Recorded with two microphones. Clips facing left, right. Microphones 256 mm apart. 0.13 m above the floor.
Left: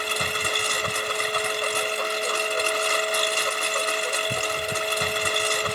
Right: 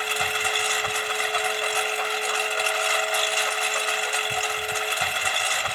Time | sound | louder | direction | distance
0.0 | a lawn mower | even | 45° left (ahead or behind) | ?